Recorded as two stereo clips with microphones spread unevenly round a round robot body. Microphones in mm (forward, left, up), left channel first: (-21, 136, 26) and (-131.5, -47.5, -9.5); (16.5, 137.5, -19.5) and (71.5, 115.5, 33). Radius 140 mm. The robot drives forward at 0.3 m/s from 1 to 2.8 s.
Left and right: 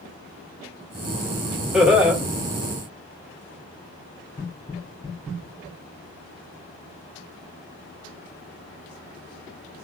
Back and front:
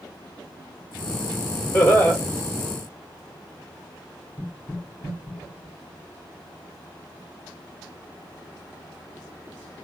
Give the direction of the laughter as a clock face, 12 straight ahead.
7 o'clock.